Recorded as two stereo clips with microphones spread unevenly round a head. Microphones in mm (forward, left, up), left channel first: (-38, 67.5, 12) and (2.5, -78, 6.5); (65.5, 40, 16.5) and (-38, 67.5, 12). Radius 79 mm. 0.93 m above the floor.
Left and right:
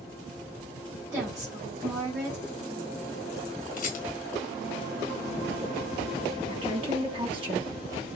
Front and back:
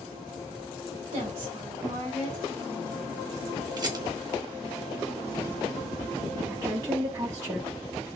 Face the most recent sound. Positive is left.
turn(degrees=-125)